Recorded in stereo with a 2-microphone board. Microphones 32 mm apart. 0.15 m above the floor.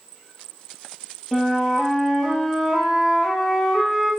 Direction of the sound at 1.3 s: Centre (ahead or behind).